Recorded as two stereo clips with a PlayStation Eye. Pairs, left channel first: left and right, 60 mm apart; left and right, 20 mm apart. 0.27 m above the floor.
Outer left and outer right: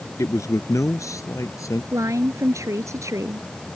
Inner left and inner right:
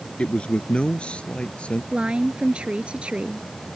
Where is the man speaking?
65° left (ahead or behind).